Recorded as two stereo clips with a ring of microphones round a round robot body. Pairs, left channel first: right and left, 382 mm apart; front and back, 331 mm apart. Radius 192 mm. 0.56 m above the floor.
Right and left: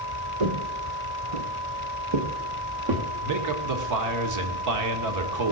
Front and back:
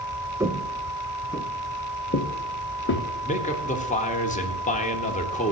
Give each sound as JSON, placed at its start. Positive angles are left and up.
{"t": 0.4, "sound": "footsteps", "azimuth_deg": 100, "distance_m": 1.5}
{"t": 3.2, "sound": "a man speaking", "azimuth_deg": 60, "distance_m": 1.9}